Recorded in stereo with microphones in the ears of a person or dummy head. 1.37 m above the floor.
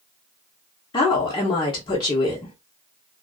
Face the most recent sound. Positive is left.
turn(degrees=25)  # may be behind; listen again after turning